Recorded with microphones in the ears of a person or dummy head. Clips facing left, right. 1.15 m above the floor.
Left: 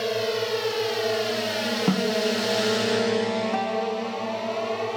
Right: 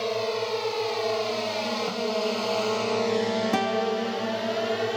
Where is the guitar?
40° right (ahead or behind).